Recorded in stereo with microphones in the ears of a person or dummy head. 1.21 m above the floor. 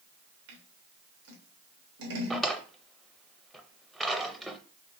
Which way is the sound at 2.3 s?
5° left (ahead or behind).